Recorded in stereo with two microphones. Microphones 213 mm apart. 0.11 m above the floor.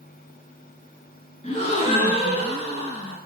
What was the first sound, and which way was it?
A gasp, 30° left (ahead or behind).